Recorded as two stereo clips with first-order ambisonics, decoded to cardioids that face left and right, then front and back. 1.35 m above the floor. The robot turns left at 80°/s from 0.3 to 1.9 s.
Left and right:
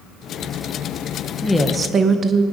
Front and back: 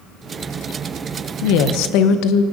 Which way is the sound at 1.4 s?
15° left.